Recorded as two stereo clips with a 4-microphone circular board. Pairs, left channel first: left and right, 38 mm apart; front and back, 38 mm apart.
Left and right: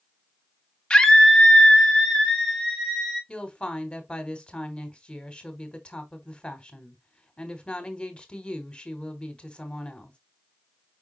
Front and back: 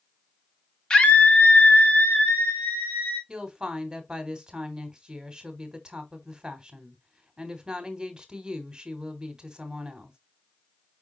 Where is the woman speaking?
125° left, 1.1 m.